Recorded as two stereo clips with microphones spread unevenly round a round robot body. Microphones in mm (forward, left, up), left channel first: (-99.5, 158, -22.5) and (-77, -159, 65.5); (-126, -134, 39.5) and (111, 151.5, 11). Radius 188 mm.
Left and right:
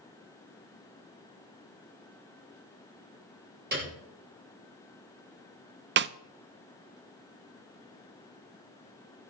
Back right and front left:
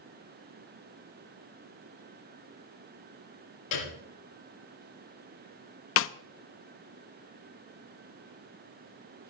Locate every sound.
3.7 s a piano: 145° right, 5 m
6.0 s a snare drum: 140° right, 0.5 m